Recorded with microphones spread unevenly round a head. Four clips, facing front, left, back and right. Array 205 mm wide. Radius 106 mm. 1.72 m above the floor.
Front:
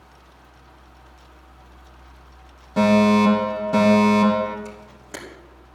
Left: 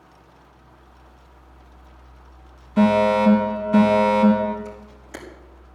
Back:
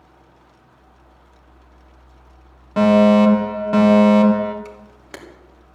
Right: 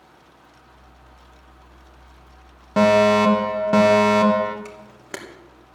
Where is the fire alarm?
105° right, 2.5 m.